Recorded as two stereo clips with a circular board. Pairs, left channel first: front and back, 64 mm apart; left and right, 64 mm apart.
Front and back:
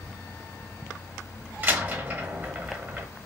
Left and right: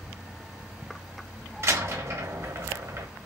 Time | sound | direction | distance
1.6 | a door slam | 125° right | 0.8 m